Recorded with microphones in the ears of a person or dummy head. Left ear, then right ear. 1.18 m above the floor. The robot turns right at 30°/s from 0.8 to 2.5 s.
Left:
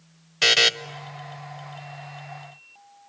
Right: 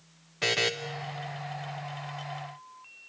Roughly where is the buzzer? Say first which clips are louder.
Left 9 dB; left.